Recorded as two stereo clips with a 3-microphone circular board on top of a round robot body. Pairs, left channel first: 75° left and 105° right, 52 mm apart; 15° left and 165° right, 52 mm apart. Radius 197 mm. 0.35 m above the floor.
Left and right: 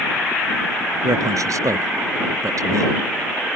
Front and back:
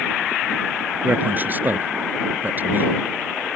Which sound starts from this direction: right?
A man speaking, at 1.0 s.